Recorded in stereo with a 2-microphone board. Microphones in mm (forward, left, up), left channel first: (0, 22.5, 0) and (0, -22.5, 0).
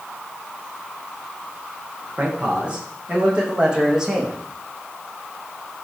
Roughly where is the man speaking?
Right.